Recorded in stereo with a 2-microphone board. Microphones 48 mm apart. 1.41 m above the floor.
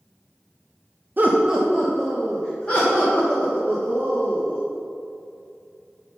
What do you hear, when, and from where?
1.2 s laughter: 40° right (ahead or behind), 0.6 m; by 4.6 s 35° left (ahead or behind), 2.5 m